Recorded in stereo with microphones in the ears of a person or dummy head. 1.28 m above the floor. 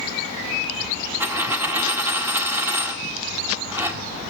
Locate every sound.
1.2 s a dropped coin: 15° right (ahead or behind), 1.4 m